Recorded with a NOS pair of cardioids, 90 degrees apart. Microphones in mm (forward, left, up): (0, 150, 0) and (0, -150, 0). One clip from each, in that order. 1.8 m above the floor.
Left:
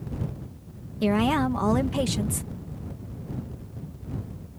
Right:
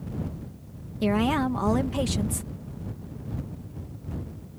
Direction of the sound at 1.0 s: 10° left.